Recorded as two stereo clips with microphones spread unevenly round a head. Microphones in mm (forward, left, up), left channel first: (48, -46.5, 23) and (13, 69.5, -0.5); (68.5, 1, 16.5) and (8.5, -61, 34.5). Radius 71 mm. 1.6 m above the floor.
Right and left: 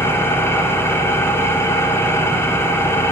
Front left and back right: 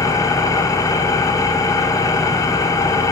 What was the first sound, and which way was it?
An engine running, 5° right.